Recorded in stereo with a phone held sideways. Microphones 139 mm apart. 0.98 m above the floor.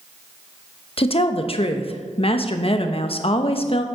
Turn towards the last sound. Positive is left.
turn(degrees=45)  # may be behind; listen again after turning